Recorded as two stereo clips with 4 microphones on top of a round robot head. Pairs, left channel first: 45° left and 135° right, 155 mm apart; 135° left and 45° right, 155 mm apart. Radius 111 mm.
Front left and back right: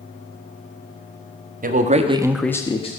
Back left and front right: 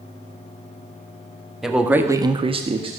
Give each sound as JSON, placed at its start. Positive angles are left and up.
{"t": 1.6, "sound": "a man speaking", "azimuth_deg": -130, "distance_m": 1.4}